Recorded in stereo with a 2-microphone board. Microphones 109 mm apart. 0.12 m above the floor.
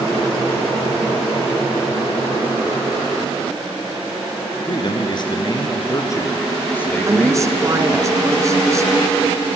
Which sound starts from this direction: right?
A woman speaking, at 7.1 s.